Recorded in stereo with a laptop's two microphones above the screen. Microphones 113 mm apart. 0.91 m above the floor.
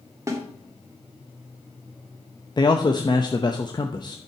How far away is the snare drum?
About 2.5 m.